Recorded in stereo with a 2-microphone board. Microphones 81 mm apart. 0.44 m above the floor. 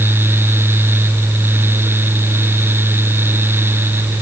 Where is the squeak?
I don't hear a squeak.